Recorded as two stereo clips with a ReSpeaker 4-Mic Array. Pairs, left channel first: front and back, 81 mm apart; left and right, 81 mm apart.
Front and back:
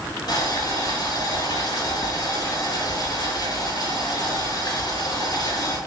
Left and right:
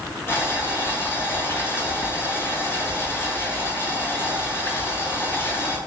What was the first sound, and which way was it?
Boiling, 30° left.